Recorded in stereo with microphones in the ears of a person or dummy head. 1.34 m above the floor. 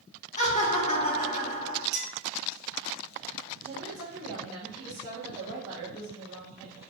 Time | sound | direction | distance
0.4 | laughter | 40° left (ahead or behind) | 1.2 m
1.9 | a clink | 60° right (ahead or behind) | 1.1 m
3.6 | a woman speaking | 10° right (ahead or behind) | 1.1 m